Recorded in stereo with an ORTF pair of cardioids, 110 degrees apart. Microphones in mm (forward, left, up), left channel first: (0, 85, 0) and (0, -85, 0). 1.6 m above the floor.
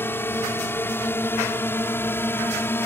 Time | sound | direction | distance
0.0 | a drone | 10° left | ?